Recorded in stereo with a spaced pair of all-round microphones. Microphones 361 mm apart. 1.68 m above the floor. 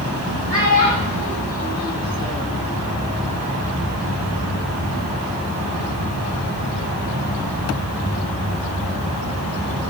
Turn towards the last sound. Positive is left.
turn(degrees=-10)  # may be behind; listen again after turning